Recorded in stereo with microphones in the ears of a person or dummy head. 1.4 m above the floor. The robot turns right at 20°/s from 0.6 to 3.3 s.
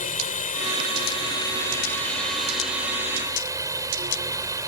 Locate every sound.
0.0 s a drone: 145° left; by 4.7 s 160° right